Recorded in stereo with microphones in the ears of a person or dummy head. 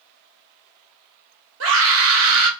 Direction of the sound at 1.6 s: 70° right (ahead or behind).